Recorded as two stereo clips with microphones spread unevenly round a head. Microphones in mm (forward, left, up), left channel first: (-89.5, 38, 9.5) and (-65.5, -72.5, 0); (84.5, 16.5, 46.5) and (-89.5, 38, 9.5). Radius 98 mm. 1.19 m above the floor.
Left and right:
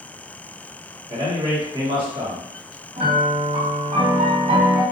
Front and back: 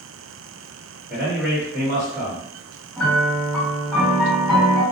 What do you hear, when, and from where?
1.1 s a man speaking: 110° right, 1.4 m
3.0 s a piano: 100° right, 1.7 m